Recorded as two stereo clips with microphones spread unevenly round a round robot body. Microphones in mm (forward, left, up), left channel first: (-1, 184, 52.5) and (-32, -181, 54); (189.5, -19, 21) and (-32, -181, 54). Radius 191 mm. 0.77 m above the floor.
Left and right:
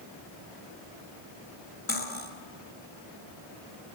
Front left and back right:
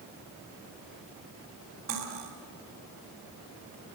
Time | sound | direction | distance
1.9 | cutlery clinking | 150° left | 3 m